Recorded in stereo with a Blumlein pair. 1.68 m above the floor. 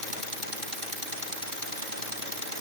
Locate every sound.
Only background noise.